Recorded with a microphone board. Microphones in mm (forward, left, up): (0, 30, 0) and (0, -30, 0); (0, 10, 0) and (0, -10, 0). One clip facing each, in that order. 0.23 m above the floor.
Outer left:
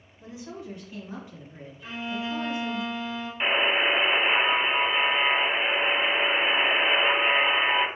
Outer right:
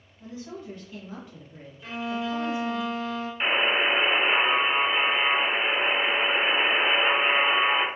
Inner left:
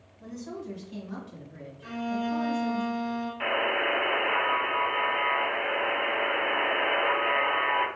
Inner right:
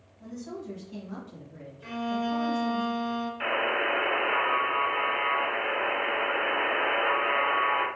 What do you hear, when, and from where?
0.2 s a woman speaking: 10° left (ahead or behind), 1.5 m; by 2.8 s 40° left (ahead or behind), 2.5 m
1.8 s a violin: 10° left (ahead or behind), 1.7 m
3.4 s a buzzer: 10° left (ahead or behind), 1.1 m